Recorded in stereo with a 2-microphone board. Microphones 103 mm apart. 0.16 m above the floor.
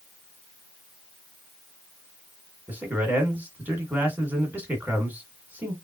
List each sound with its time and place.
2.7 s a man speaking: 15° right (ahead or behind), 1.7 m